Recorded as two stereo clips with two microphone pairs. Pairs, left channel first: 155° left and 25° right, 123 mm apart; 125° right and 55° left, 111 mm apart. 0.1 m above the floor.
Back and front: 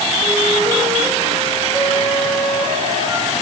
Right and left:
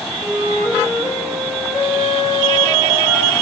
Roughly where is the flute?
Behind left.